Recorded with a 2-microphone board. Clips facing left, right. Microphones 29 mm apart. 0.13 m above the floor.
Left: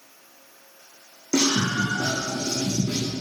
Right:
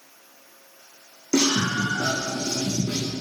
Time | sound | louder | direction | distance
1.3 | a scream | even | 15° right (ahead or behind) | 8 m